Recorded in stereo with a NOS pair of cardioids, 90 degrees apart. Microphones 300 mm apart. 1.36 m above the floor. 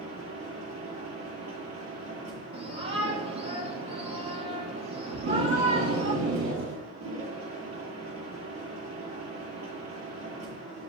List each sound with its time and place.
0.0 s a machine running: 65° right, 7.5 m
2.5 s a shout: 45° right, 3.5 m
5.1 s tape being pulled: 70° right, 8 m